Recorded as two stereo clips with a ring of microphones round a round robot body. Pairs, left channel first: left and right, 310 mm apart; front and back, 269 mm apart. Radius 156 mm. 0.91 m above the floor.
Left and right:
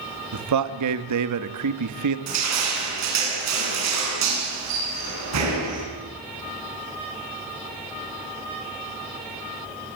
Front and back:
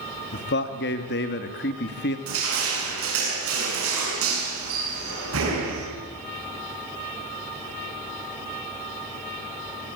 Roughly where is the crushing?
Behind right.